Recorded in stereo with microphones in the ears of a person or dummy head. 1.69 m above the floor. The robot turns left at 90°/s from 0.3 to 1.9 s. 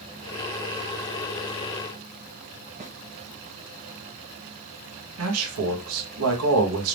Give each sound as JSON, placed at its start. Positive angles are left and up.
{"t": 2.8, "sound": "a snare drum", "side_deg": -35, "distance_m": 0.9}
{"t": 5.2, "sound": "a man speaking", "side_deg": -85, "distance_m": 1.5}